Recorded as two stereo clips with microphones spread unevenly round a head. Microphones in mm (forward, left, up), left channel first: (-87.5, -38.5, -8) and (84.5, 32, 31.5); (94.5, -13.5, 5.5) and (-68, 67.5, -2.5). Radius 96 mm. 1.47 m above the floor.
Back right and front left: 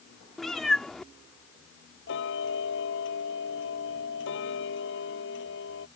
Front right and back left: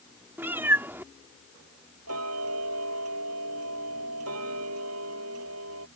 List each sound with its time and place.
0.4 s a cat meowing: 85° left
2.1 s ticking: 175° left